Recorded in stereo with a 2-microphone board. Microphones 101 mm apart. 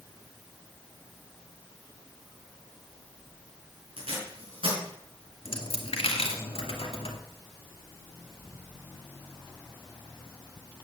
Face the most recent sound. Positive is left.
turn(degrees=70)  # may be behind; listen again after turning